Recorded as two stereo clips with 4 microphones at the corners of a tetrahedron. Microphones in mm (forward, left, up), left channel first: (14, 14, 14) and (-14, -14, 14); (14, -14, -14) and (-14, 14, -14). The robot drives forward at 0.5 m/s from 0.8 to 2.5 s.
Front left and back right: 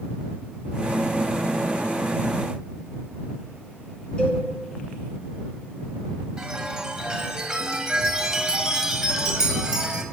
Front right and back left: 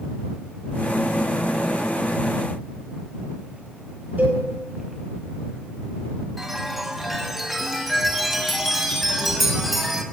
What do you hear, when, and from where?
4.2 s a cowbell: 105° left, 3 m
6.4 s a chime: 145° right, 1.6 m